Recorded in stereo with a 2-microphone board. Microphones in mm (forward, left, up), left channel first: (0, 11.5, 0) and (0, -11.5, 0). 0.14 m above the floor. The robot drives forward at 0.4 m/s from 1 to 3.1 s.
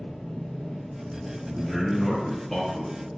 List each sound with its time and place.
0.0 s an engine running: 35° left (ahead or behind), 1.6 m; by 3.2 s 25° left (ahead or behind), 2.5 m
1.5 s a man speaking: 10° left (ahead or behind), 1.4 m